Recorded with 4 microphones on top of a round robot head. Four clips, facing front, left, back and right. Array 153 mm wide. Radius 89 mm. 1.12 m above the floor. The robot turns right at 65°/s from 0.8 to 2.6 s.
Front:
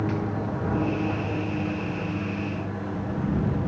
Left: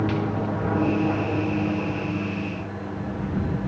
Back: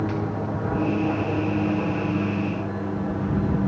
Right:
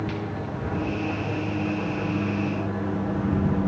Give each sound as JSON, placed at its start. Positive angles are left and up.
{"t": 0.0, "sound": "an aircraft", "azimuth_deg": 100}